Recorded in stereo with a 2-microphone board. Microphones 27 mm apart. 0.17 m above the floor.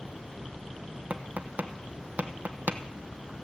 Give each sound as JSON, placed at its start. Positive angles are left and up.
{"t": 1.1, "sound": "tapping", "side_deg": -85, "distance_m": 1.2}